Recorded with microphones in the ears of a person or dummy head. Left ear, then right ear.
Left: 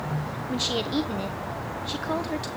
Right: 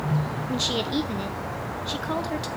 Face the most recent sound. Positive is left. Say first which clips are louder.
# right 1 dB
turn(degrees=5)  # may be behind; listen again after turning